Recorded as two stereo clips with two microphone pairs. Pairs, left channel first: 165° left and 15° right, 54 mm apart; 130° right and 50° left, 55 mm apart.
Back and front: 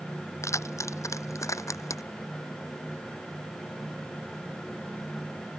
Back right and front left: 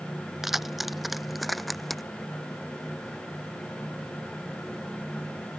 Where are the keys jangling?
135° left; by 2.0 s 145° left.